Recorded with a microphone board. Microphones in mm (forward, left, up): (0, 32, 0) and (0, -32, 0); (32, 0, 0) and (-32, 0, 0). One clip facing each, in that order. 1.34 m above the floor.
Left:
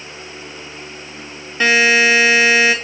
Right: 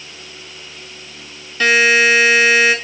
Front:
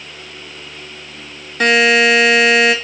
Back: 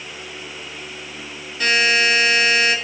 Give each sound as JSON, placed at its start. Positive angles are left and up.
{"t": 1.6, "sound": "a buzzer", "azimuth_deg": 25, "distance_m": 2.5}